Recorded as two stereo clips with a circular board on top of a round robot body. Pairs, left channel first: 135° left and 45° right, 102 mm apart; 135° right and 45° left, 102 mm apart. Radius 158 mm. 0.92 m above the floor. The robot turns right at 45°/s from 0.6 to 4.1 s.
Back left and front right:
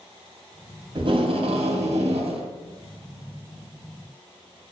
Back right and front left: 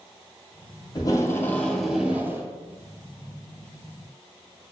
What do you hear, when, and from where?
0.9 s tape being pulled: 85° right, 2.5 m; by 2.5 s 20° right, 2.5 m